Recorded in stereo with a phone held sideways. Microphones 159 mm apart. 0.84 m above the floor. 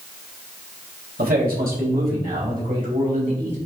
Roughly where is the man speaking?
Right.